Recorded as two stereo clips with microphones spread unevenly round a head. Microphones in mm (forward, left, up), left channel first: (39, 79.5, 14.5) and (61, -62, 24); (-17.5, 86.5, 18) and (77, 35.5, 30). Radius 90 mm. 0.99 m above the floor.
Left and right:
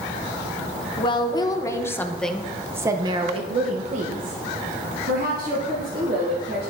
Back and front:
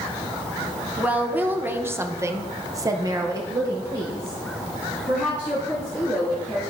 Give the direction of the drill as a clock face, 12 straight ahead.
I don't hear a drill.